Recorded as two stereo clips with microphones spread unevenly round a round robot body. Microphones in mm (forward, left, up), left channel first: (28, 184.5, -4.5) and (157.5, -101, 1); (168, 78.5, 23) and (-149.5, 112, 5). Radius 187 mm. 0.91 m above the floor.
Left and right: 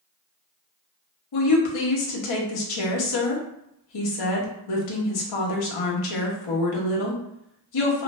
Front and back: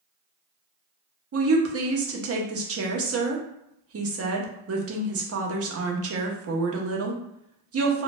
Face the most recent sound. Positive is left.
turn(degrees=130)